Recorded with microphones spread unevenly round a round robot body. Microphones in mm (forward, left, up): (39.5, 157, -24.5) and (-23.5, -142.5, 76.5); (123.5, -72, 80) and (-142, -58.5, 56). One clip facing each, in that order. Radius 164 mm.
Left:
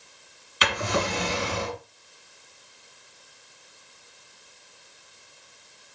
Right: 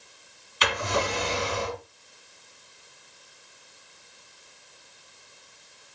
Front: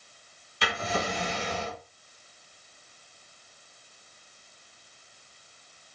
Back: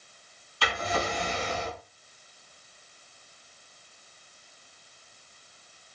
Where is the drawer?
70° left, 2.0 m.